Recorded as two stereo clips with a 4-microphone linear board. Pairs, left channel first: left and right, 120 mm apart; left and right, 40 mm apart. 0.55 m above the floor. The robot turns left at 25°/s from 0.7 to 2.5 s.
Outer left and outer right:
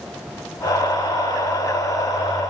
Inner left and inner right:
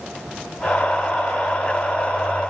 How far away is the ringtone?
I don't hear a ringtone.